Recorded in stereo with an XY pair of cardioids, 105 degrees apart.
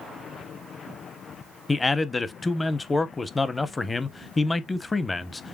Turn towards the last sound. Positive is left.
turn(degrees=20)